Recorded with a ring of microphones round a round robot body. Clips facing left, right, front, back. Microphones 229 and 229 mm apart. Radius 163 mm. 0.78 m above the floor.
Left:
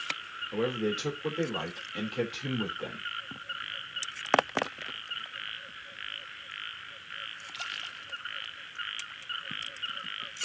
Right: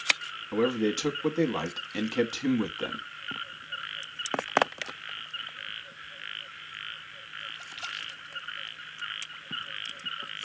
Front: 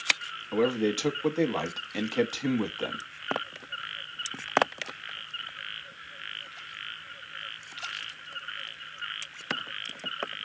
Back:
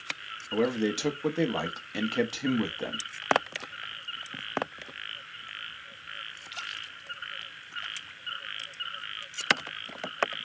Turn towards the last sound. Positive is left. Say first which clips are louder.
# right 4 dB, front 1 dB
turn(degrees=-100)